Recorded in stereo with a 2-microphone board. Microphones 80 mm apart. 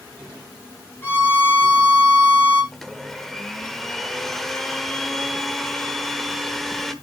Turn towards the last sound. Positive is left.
turn(degrees=5)  # may be behind; listen again after turning